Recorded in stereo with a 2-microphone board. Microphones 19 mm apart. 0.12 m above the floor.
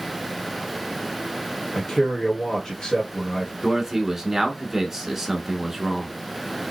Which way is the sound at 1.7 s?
30° left (ahead or behind).